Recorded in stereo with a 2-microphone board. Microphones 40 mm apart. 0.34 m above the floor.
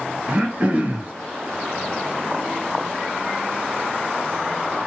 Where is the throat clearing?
35° right (ahead or behind), 1.2 m.